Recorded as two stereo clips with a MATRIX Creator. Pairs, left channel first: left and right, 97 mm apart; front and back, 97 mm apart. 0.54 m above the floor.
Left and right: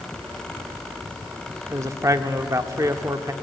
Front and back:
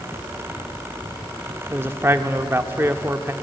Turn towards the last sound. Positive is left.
turn(degrees=-125)